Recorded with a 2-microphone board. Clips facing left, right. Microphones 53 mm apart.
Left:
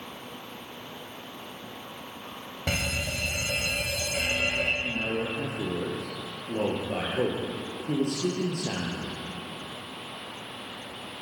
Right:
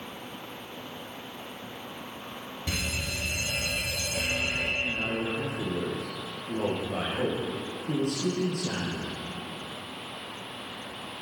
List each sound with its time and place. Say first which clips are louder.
2.7 s a fire alarm: left 3 dB; 50° left (ahead or behind), 3.5 m
4.8 s a man speaking: even; 60° left (ahead or behind), 7 m